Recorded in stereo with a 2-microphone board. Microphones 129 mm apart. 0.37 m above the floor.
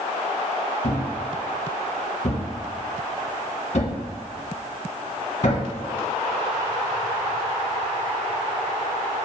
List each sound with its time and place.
0.8 s a thud: 65° left (ahead or behind), 1.5 m